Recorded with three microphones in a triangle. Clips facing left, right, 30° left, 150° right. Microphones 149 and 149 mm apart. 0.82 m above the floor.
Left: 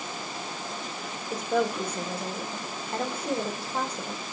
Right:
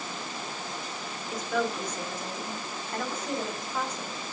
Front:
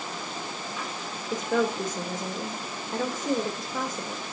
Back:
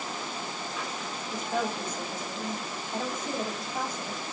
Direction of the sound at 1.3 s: 30° left.